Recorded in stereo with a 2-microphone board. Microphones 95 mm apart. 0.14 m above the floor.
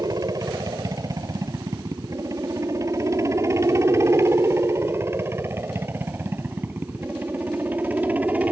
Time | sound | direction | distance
0.0 | a helicopter | 40° right (ahead or behind) | ?